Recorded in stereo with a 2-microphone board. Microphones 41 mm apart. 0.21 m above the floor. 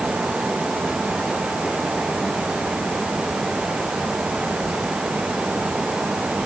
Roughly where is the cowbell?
I don't hear a cowbell.